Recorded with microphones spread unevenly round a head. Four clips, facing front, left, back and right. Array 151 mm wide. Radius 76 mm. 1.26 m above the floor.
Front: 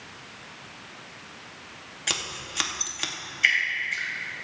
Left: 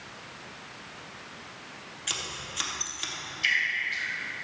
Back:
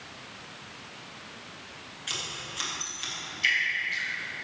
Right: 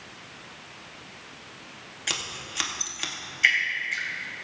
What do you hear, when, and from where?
2.1 s scissors: 25° right, 1.8 m
3.4 s dripping: 75° right, 2.5 m